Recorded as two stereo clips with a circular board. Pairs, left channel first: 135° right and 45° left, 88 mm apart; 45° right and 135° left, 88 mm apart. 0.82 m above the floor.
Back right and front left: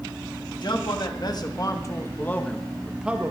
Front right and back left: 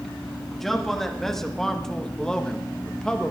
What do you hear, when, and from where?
0.5 s a man speaking: 135° right, 1.4 m; by 3.3 s 20° left, 0.8 m